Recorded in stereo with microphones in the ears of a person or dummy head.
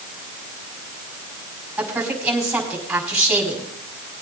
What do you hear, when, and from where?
1.8 s a woman speaking: 5° right (ahead or behind), 6 m